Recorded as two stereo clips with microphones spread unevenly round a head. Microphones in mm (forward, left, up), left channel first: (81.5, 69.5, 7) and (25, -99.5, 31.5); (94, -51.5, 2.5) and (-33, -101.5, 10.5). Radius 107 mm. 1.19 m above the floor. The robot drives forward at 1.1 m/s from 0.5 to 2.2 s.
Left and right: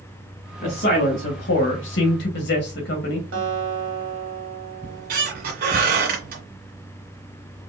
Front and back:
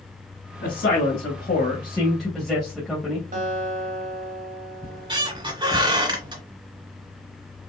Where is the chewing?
No chewing in this recording.